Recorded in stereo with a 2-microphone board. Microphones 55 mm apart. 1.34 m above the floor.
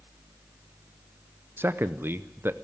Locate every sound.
1.6 s a man speaking: 45° right (ahead or behind), 0.7 m